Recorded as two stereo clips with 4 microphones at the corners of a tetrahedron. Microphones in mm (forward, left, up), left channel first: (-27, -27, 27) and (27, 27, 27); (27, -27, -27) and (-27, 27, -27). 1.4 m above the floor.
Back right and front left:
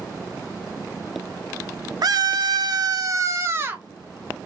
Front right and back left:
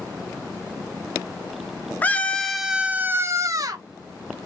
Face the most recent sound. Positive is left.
turn(degrees=110)